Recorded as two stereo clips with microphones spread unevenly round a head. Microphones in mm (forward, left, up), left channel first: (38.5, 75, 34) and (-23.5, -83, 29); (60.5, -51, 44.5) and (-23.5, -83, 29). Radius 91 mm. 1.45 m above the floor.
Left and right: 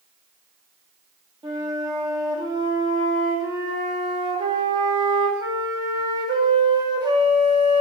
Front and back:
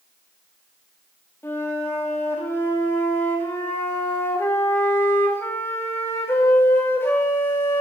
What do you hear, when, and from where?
1.4 s a flute: 45° right, 2.5 m